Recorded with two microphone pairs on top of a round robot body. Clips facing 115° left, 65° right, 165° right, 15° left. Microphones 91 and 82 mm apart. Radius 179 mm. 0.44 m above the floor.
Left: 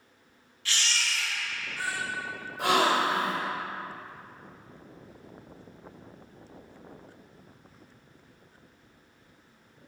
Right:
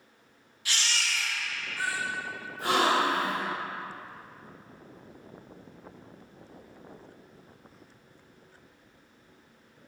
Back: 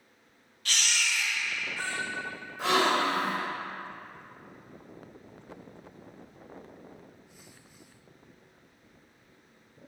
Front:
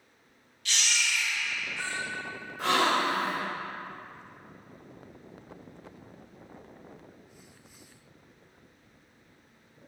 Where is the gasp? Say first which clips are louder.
Left 1 dB, even; 105° left, 1.5 m.